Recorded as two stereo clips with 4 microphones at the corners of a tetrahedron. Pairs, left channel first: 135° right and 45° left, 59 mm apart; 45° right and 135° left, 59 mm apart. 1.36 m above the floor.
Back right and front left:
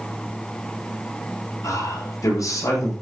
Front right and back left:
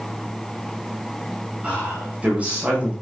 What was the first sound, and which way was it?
A man speaking, 155° right.